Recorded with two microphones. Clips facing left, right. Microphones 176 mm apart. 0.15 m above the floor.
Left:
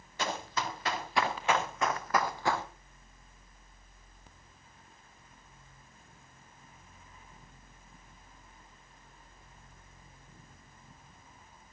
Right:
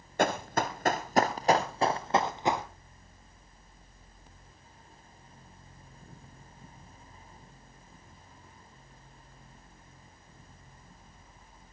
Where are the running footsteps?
55° right (ahead or behind), 2 m; by 2.6 s 15° right (ahead or behind), 1.5 m.